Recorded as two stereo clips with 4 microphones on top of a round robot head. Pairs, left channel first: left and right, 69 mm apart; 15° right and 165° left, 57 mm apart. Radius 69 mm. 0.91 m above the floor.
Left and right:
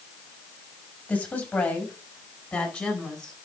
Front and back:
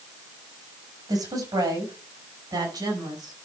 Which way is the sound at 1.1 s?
160° left.